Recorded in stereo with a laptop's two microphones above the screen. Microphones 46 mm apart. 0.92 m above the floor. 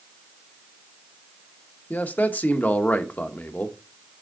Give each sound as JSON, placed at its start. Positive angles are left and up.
{"t": 1.9, "sound": "a man speaking", "side_deg": 40, "distance_m": 0.8}